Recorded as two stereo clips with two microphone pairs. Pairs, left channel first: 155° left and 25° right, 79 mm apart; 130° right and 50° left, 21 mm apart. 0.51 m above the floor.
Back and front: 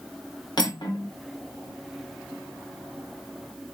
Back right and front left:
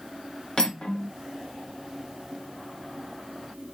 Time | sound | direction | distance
0.6 | cutlery clinking | straight behind | 0.9 m